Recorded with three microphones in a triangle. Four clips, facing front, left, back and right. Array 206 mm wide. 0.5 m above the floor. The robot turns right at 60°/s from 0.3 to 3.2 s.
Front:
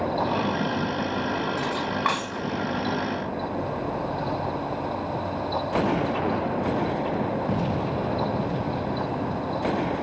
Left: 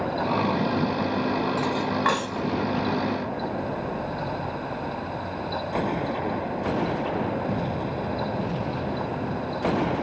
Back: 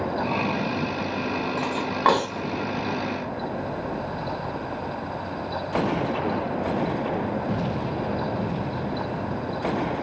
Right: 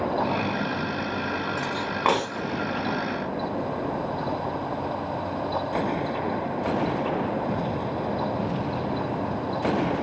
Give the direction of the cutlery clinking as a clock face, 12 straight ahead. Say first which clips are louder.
Left 2 dB, back 2 dB; 6 o'clock.